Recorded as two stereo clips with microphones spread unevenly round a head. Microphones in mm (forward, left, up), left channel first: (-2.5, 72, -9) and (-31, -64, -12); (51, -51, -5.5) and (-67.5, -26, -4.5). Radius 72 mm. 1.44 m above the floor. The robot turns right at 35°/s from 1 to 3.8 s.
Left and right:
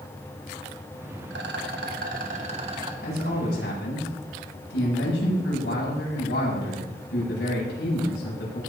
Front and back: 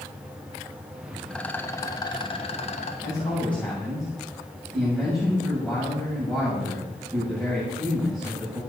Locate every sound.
1.3 s a rattle: 95° right, 1.7 m; by 2.9 s 40° right, 1.7 m
3.0 s a man speaking: 50° left, 7.5 m; by 8.6 s 80° left, 7.5 m